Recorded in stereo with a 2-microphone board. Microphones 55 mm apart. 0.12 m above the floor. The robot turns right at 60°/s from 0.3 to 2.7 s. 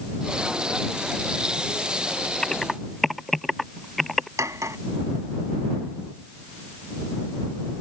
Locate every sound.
2.4 s typing on a keyboard: 15° left (ahead or behind); by 4.3 s centre (ahead or behind)
4.4 s cutlery clinking: 65° right (ahead or behind)